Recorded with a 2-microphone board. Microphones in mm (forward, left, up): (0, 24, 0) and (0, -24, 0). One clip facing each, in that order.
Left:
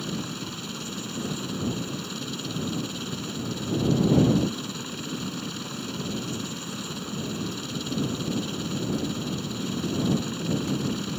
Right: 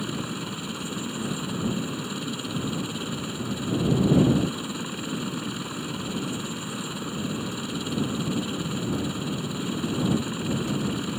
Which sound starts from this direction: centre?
A helicopter, at 0.0 s.